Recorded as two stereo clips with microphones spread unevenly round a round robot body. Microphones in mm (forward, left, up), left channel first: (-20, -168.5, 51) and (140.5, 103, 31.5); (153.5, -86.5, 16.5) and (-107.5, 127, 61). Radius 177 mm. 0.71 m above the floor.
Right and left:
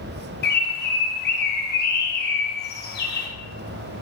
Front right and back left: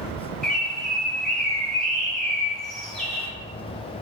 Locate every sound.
0.4 s a bird: 110° right, 0.5 m